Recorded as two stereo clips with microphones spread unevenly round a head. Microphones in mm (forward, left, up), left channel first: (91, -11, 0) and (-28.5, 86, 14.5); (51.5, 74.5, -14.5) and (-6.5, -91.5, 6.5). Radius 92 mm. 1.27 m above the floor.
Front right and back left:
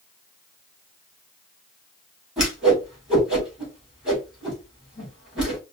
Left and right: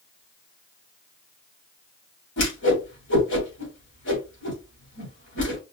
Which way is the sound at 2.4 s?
55° left.